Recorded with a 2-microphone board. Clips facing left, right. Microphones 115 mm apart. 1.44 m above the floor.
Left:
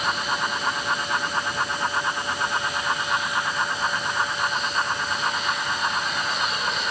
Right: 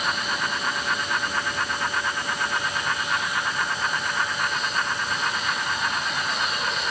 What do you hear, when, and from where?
Only background noise.